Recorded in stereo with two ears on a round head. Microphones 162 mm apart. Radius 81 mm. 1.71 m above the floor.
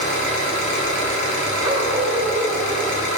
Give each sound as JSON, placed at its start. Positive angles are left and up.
{"t": 0.0, "sound": "an engine running", "side_deg": 45, "distance_m": 4.0}
{"t": 1.6, "sound": "a dog barking", "side_deg": -25, "distance_m": 3.0}